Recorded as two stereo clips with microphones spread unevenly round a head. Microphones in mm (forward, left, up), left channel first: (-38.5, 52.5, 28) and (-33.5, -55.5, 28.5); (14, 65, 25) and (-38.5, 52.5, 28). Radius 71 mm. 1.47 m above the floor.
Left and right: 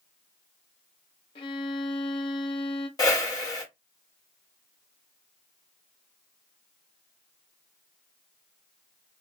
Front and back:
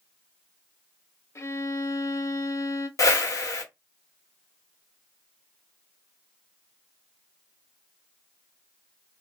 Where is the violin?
45° left, 0.5 m.